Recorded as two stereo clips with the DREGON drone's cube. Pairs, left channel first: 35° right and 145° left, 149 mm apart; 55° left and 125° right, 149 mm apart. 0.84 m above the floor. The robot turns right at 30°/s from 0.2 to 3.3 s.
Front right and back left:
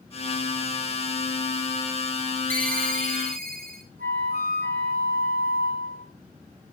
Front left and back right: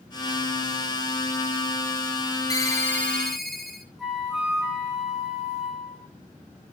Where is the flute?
145° left, 4 m.